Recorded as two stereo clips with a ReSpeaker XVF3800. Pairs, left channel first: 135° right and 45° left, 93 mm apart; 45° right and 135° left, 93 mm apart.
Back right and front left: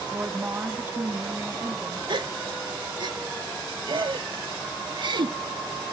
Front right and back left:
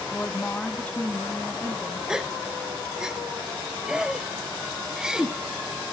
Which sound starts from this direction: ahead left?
A gasp, at 2.1 s.